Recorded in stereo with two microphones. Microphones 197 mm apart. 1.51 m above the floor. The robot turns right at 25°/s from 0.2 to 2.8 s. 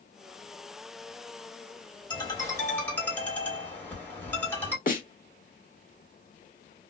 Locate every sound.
2.1 s a ringtone: 20° left (ahead or behind), 1.4 m; by 4.8 s 10° left (ahead or behind), 1.4 m
4.9 s a snare drum: 45° left (ahead or behind), 1.3 m